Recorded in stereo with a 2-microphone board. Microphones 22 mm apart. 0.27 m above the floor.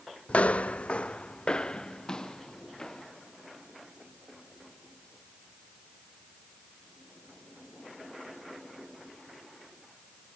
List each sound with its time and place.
0.3 s footsteps: 70° left (ahead or behind), 0.6 m; by 3.1 s 25° left (ahead or behind), 2.5 m